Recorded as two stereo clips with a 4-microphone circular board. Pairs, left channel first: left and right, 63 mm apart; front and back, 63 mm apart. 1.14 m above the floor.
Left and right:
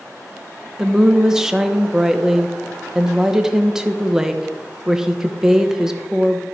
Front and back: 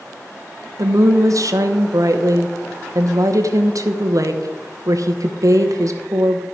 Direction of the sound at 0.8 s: 170° right.